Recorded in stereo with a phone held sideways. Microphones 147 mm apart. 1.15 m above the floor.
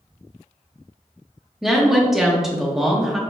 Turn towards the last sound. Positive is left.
turn(degrees=-5)  # may be behind; listen again after turning